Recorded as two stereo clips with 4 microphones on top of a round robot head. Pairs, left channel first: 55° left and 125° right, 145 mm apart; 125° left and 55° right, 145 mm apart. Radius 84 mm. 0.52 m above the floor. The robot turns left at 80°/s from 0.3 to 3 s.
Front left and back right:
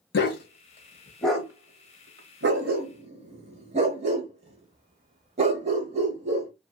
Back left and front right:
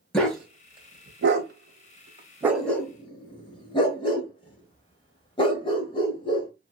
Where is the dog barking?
40° left, 0.9 m; by 6.5 s 175° right, 0.9 m.